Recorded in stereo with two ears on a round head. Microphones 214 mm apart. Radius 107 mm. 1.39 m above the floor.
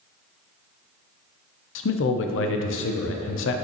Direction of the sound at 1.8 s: 55° left (ahead or behind).